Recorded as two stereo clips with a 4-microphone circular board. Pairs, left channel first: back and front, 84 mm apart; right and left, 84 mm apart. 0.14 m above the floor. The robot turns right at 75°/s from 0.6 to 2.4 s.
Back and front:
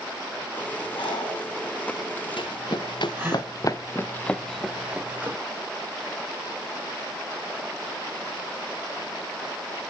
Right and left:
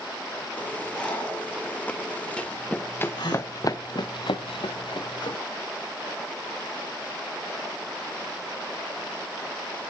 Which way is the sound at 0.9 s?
175° right.